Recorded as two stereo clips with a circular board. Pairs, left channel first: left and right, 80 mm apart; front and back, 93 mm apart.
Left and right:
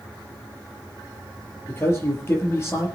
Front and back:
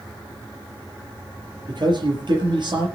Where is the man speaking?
145° left, 5 m.